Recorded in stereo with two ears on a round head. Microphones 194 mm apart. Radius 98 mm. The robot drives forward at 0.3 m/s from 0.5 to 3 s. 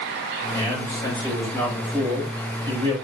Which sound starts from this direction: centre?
A man speaking, at 0.5 s.